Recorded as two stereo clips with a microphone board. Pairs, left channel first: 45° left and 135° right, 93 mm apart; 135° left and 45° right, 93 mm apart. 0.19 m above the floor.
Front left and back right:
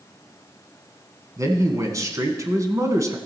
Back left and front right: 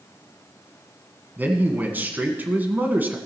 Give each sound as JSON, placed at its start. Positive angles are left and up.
{"t": 1.4, "sound": "a man speaking", "azimuth_deg": -105, "distance_m": 1.4}